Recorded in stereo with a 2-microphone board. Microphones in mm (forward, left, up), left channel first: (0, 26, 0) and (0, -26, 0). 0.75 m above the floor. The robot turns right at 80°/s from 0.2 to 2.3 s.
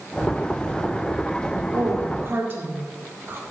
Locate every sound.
1.7 s a woman speaking: 70° right (ahead or behind), 1.7 m; by 3.4 s 40° right (ahead or behind), 1.7 m